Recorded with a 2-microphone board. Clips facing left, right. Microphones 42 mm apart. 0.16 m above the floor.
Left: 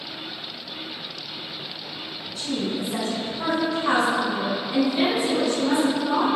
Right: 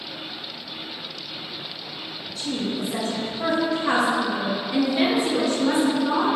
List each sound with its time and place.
2.4 s a woman speaking: 35° left (ahead or behind), 1.5 m; by 6.3 s 15° right (ahead or behind), 1.8 m